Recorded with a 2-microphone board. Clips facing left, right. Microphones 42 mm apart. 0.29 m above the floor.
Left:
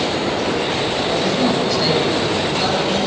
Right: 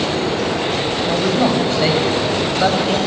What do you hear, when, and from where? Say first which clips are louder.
1.1 s a man speaking: right 3 dB; 35° right (ahead or behind), 1.9 m